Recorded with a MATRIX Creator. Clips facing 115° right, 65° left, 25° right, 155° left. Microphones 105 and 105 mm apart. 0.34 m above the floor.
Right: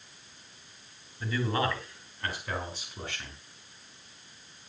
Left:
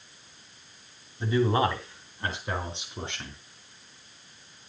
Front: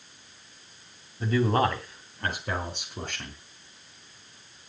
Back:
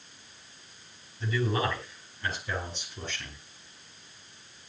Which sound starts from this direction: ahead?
A man speaking, at 1.2 s.